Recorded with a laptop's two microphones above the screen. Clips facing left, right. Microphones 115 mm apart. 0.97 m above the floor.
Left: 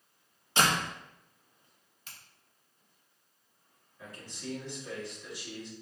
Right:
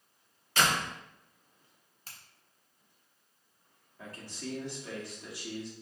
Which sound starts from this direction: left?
A door slam, at 0.6 s.